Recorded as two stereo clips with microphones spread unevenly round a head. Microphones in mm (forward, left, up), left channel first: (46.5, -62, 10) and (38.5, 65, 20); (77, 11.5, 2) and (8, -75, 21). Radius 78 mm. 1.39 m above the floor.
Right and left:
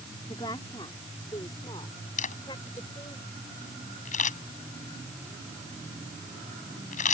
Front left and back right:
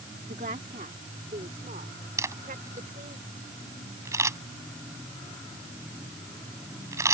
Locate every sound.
0.3 s a woman speaking: 155° right
2.2 s a camera shutter: 65° right